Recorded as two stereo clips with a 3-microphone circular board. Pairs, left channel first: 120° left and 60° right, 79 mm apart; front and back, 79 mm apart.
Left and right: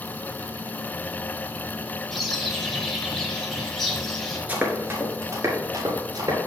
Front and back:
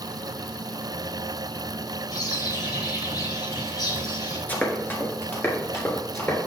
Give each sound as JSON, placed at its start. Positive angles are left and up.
{"t": 2.1, "sound": "a bird", "azimuth_deg": 30, "distance_m": 1.5}
{"t": 4.5, "sound": "running footsteps", "azimuth_deg": -25, "distance_m": 1.6}